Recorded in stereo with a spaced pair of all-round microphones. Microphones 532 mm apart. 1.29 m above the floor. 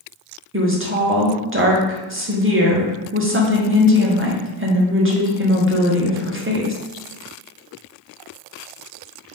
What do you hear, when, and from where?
0.5 s a woman speaking: 25° right (ahead or behind), 0.8 m